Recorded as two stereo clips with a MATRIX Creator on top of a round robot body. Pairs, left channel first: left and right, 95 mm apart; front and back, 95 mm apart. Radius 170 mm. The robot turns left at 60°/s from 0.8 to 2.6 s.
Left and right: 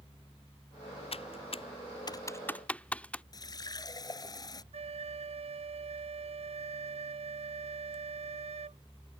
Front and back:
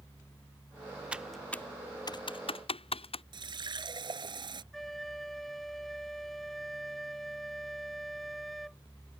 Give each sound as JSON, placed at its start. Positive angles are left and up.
{"t": 1.1, "sound": "typing on a keyboard", "azimuth_deg": 100}
{"t": 3.3, "sound": "a running tap", "azimuth_deg": 140}
{"t": 4.7, "sound": "a flute", "azimuth_deg": -90}